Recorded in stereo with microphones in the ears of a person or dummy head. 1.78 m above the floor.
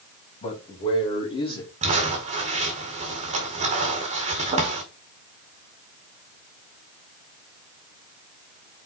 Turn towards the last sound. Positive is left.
turn(degrees=-45)  # may be behind; listen again after turning